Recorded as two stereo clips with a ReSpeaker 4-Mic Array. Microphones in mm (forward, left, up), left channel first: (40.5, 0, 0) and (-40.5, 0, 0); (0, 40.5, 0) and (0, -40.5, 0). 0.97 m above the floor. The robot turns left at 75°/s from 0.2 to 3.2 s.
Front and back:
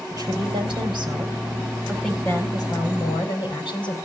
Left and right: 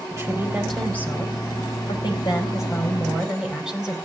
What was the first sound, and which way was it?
A woman speaking, 145° right.